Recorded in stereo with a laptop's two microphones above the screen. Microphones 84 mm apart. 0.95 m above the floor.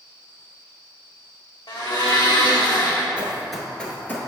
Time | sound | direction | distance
1.7 | a blender | 55° left (ahead or behind) | 1.1 m
3.2 | running footsteps | 15° right (ahead or behind) | 1.1 m